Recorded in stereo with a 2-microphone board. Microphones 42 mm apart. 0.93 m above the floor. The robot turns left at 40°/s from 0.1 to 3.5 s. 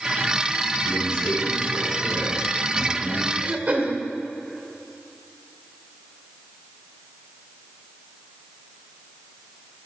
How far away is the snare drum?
No snare drum in this recording.